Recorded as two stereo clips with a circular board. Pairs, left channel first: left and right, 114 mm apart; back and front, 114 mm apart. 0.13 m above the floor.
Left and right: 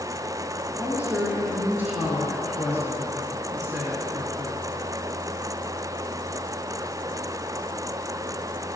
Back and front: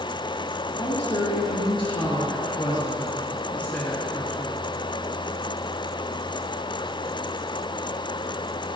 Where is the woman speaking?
165° right, 2.5 m; by 4.6 s 80° right, 1.3 m.